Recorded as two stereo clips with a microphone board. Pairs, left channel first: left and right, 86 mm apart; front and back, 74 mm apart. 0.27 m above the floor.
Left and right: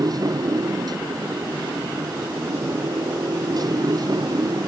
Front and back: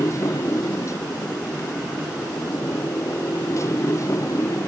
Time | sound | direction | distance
0.0 | a motorcycle | 50° right | ?